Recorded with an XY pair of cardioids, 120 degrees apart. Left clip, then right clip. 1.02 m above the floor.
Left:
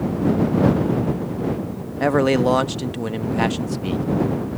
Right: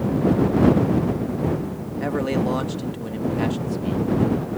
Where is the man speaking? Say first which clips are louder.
Left 7 dB; 50° left.